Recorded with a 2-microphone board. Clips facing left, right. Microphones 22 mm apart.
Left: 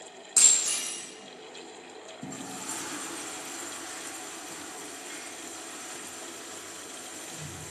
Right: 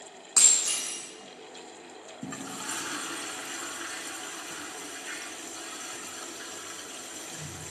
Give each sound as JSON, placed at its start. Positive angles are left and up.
{"t": 0.4, "sound": "breaking glass", "side_deg": -35, "distance_m": 5.5}
{"t": 2.2, "sound": "a toilet flushing", "side_deg": -45, "distance_m": 1.3}